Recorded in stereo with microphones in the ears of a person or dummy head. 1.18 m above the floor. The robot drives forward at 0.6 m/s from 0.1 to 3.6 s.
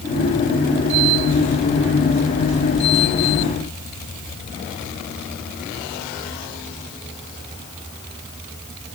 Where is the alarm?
I don't hear an alarm.